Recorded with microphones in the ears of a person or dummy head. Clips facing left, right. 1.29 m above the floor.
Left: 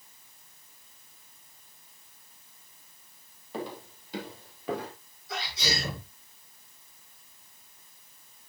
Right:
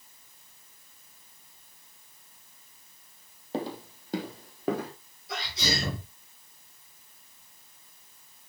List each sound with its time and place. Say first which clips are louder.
3.5 s footsteps: right 4 dB; 25° right (ahead or behind), 3 m; by 4.9 s 40° right (ahead or behind), 4.5 m
5.3 s a sneeze: right 1 dB; 55° right (ahead or behind), 7.5 m